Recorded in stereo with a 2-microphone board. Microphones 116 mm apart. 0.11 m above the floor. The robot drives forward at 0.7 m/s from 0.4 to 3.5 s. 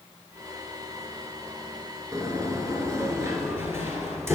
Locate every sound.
2.1 s a sliding door: 30° right (ahead or behind), 1.0 m; by 4.4 s 20° right (ahead or behind), 1.3 m